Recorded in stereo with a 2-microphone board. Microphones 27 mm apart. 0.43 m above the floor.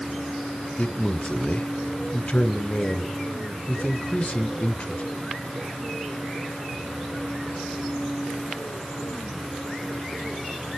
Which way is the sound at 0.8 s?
45° left (ahead or behind).